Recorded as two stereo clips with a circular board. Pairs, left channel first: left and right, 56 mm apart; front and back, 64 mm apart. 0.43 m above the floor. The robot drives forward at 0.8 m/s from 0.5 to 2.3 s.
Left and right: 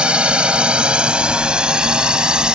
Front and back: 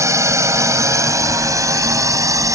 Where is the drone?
160° right; by 2.5 s 165° right.